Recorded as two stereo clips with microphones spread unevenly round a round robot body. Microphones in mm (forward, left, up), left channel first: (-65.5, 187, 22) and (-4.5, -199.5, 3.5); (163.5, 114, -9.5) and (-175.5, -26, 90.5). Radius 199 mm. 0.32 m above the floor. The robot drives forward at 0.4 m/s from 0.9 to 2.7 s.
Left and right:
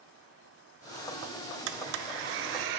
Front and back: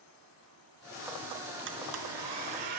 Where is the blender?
95° right, 0.9 m; by 2.8 s 120° right, 1.1 m.